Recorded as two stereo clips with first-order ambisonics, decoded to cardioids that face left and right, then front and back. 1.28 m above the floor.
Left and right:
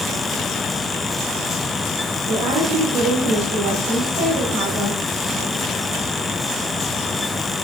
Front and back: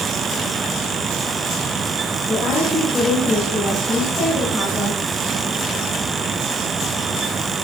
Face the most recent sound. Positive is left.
turn(degrees=-75)